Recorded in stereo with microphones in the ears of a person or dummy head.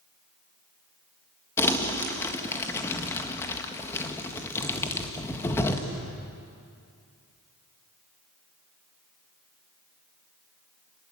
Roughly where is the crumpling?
Centre.